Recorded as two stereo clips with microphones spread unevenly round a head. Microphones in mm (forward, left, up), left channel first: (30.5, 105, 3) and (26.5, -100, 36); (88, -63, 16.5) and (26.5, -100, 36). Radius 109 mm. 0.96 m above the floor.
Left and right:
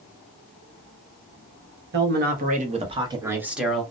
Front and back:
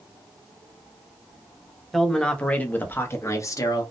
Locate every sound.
1.9 s a man speaking: 50° right, 1.2 m; by 3.8 s 5° left, 1.1 m